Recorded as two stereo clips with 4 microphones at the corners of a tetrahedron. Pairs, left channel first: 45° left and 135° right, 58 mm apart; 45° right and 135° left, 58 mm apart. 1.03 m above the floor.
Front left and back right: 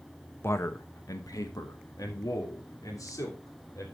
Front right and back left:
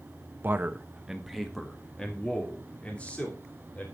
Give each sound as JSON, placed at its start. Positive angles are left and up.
{"t": 0.4, "sound": "a man speaking", "azimuth_deg": 85, "distance_m": 1.0}